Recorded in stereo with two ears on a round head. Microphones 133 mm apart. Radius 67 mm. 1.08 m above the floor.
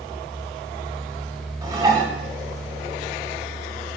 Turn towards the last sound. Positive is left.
turn(degrees=-25)  # may be behind; listen again after turning